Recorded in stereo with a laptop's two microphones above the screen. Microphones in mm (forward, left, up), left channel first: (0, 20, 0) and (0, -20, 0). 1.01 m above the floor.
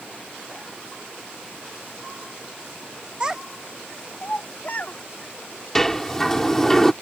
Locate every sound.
3.2 s a child speaking: 25° right (ahead or behind); by 5.0 s 50° left (ahead or behind)
5.8 s a sliding door: 10° left (ahead or behind)